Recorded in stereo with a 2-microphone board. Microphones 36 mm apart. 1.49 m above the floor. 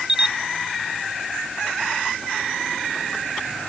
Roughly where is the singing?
No singing in this recording.